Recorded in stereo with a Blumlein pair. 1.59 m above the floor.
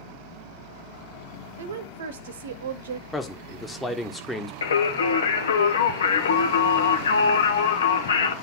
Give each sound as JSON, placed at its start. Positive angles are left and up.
{"t": 1.6, "sound": "a woman speaking", "azimuth_deg": -60, "distance_m": 0.9}
{"t": 3.1, "sound": "a man speaking", "azimuth_deg": 5, "distance_m": 1.6}
{"t": 4.6, "sound": "singing", "azimuth_deg": 65, "distance_m": 1.2}